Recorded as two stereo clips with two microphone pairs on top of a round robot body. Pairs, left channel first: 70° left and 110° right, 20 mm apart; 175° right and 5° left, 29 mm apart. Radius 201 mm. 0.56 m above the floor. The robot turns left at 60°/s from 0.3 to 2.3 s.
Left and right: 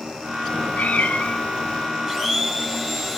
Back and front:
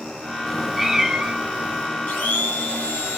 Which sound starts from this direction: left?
A cat meowing, at 0.5 s.